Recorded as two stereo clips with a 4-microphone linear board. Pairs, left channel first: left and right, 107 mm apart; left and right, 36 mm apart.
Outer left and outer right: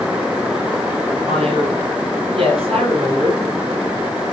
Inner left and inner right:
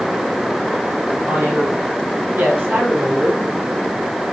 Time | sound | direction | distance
1.3 | a man speaking | 60° right (ahead or behind) | 8 m